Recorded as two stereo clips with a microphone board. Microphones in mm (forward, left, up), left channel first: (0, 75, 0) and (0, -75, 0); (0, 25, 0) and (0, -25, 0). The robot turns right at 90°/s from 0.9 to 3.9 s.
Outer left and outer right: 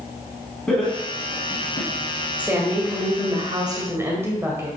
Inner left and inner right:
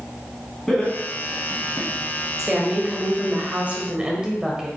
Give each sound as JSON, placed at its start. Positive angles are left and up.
{"t": 0.7, "sound": "laughter", "side_deg": 5, "distance_m": 2.5}
{"t": 2.4, "sound": "a woman speaking", "azimuth_deg": -165, "distance_m": 1.5}